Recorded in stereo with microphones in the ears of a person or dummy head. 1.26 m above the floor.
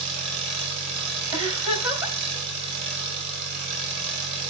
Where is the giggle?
20° right (ahead or behind), 3 m.